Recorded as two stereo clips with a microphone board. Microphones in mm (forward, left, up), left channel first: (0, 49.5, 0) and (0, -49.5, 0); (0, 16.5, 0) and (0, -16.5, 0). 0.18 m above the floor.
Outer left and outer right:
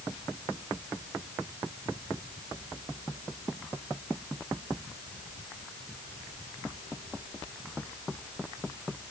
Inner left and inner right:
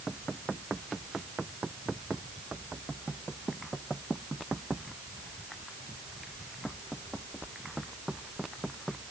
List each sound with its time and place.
Only background noise.